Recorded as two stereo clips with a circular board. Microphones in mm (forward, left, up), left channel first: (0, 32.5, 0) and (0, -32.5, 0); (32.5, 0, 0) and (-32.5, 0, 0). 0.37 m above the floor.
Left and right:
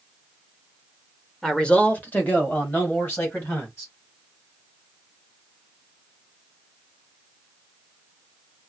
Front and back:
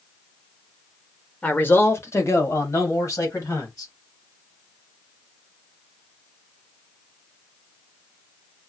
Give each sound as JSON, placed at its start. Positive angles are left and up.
{"t": 1.4, "sound": "a man speaking", "azimuth_deg": 15, "distance_m": 0.8}